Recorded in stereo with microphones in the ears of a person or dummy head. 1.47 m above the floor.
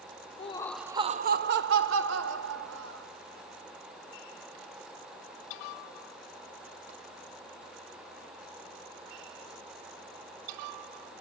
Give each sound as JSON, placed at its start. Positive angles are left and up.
{"t": 0.4, "sound": "laughter", "side_deg": 35, "distance_m": 0.8}